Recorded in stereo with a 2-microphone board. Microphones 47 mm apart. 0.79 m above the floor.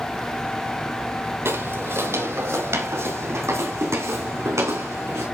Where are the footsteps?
60° right (ahead or behind), 1.5 m; by 5.2 s 80° right, 3.5 m.